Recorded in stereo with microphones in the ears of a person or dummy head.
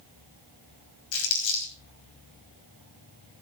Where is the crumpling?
80° left, 5 m.